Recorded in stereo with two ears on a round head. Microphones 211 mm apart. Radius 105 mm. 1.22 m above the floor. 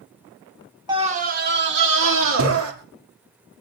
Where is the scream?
20° right (ahead or behind), 1.1 m; by 2.7 s 65° right (ahead or behind), 3 m.